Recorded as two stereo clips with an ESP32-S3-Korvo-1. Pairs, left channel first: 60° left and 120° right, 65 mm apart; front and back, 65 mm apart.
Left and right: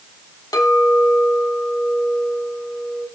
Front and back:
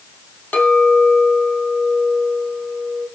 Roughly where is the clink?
Ahead left.